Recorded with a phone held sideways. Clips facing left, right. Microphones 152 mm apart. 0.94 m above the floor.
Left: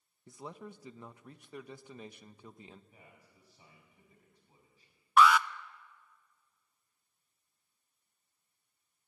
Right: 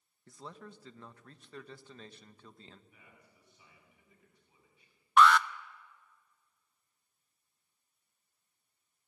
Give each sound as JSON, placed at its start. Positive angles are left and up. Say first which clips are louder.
{"t": 0.3, "sound": "a man speaking", "louder": "left 3 dB", "side_deg": 15, "distance_m": 0.9}
{"t": 2.9, "sound": "a man speaking", "louder": "left 2 dB", "side_deg": 35, "distance_m": 5.0}
{"t": 5.2, "sound": "an alarm", "louder": "even", "side_deg": 5, "distance_m": 0.6}